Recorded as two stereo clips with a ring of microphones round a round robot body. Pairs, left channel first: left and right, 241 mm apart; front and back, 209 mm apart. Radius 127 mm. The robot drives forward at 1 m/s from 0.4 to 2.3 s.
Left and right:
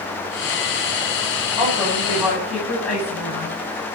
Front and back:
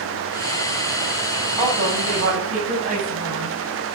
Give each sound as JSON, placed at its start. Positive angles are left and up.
{"t": 1.6, "sound": "a woman speaking", "azimuth_deg": 180, "distance_m": 7.5}